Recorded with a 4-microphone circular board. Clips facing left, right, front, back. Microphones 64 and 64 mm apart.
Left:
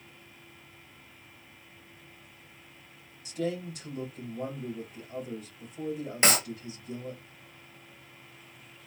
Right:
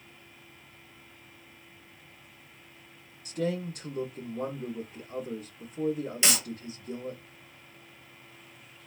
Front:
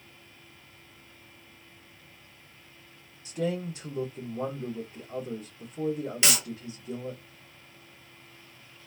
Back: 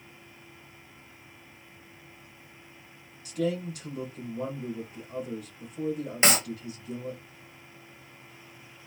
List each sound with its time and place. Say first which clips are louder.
3.2 s a man speaking: right 2 dB, back 1 dB; 60° right, 1.8 m
6.2 s a clap: left 6 dB, back 6 dB; 130° left, 0.7 m